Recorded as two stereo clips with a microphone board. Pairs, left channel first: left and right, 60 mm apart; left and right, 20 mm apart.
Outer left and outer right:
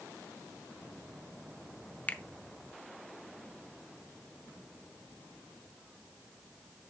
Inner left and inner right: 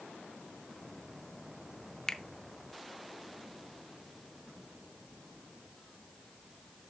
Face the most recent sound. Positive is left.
turn(degrees=30)  # may be behind; listen again after turning